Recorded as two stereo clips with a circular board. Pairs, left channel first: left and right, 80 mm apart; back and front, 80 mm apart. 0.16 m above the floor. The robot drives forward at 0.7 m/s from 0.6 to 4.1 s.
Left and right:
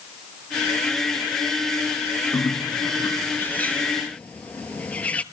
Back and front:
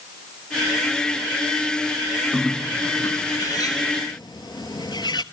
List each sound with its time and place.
2.3 s a bird: 75° left, 0.5 m; by 5.2 s 160° left, 1.3 m